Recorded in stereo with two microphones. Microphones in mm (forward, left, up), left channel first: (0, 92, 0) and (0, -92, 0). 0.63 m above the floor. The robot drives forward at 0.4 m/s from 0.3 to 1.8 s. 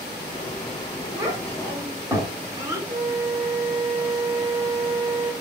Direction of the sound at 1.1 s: 20° right (ahead or behind).